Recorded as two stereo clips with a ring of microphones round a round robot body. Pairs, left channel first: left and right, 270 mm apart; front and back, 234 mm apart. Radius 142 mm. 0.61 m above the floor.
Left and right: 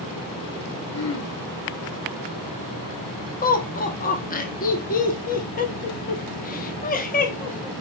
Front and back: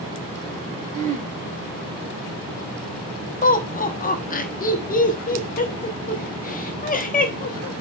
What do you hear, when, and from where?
0.9 s throat clearing: 125° left, 2 m
3.4 s laughter: 40° left, 1.1 m